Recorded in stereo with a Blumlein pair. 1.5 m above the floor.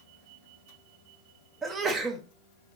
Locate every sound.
1.6 s a sneeze: 20° right, 0.7 m